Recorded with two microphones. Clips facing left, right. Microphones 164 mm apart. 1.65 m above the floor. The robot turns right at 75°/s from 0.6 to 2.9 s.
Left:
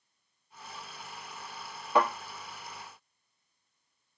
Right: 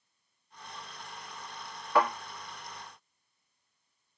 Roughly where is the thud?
Centre.